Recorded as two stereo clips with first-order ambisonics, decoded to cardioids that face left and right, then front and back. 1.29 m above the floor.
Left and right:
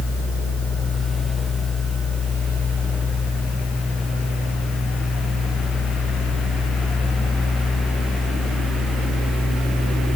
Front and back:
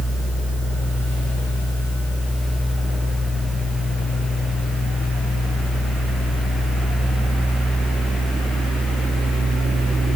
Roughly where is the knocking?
No knocking in this recording.